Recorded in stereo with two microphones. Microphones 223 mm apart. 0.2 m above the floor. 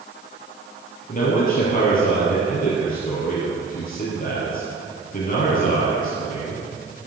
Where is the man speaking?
40° left (ahead or behind), 5.5 m.